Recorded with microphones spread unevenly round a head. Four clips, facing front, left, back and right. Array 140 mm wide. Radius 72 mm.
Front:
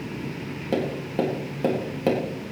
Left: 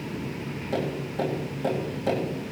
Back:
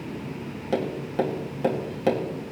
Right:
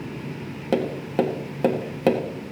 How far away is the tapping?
About 1.9 m.